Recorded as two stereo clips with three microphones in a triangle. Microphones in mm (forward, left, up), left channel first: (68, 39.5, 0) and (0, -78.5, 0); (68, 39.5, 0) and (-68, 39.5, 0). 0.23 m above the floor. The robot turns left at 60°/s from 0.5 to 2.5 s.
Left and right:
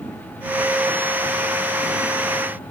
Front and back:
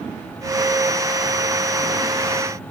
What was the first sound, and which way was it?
Only background noise.